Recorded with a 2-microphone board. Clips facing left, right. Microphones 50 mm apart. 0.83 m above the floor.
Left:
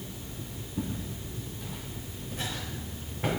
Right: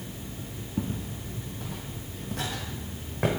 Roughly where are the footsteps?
Right.